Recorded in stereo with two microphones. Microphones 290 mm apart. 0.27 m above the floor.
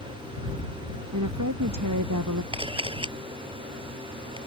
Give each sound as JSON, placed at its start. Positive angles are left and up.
{"t": 1.1, "sound": "a woman speaking", "side_deg": -80}
{"t": 2.5, "sound": "a camera shutter", "side_deg": -20}